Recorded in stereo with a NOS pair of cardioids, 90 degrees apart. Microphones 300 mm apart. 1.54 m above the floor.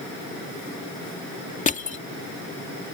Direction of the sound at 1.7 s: 25° left.